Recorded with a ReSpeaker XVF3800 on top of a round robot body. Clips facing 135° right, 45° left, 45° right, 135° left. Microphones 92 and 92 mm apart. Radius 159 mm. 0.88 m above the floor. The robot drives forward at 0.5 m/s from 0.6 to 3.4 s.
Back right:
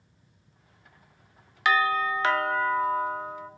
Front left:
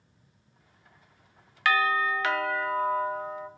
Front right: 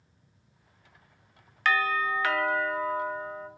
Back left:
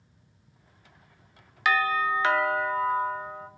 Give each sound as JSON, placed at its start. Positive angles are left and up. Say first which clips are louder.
{"t": 1.6, "sound": "a doorbell", "louder": "back right 1 dB, back left 2 dB", "azimuth_deg": -165, "distance_m": 0.7}